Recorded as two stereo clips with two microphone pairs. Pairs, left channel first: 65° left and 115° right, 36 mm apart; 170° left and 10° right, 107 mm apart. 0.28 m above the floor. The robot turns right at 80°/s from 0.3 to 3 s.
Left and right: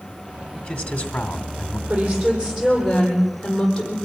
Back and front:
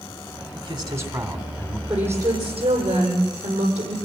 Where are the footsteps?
No footsteps in this recording.